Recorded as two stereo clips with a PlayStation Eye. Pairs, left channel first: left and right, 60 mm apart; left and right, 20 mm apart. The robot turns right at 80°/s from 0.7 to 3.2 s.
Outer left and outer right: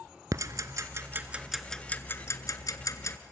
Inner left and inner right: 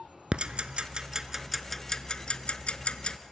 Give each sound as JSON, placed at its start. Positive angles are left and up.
{"t": 0.3, "sound": "ticking", "side_deg": -70, "distance_m": 0.7}